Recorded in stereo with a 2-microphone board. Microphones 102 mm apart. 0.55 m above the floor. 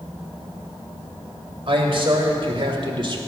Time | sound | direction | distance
1.7 | a man speaking | 60° right (ahead or behind) | 2.5 m